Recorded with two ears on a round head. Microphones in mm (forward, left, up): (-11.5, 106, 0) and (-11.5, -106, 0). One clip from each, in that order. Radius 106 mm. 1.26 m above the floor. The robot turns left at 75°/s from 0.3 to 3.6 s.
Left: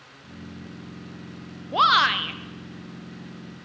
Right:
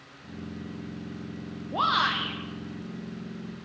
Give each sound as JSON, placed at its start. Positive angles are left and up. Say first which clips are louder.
{"t": 1.7, "sound": "a shout", "louder": "left 6 dB", "azimuth_deg": 70, "distance_m": 0.5}